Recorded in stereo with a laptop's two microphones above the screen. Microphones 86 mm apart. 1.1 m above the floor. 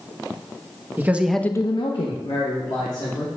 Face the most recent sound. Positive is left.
turn(degrees=65)  # may be behind; listen again after turning